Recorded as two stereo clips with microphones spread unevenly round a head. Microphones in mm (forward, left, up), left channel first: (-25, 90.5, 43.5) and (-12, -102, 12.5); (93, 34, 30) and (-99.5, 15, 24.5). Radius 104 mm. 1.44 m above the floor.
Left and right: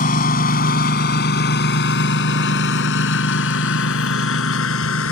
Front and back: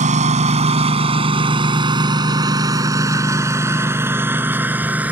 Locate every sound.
0.0 s a lawn mower: 135° left; by 5.1 s 105° left